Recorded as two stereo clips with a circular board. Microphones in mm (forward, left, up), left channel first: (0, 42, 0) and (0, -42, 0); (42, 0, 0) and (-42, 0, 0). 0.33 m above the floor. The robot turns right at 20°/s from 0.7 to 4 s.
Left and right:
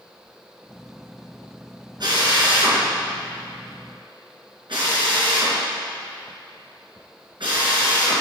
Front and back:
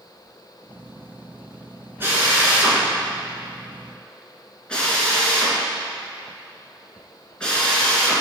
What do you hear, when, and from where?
2.0 s a drill: 120° right, 3.5 m; by 8.2 s 80° right, 3.5 m